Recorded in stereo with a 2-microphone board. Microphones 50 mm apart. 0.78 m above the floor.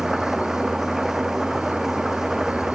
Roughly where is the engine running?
Centre.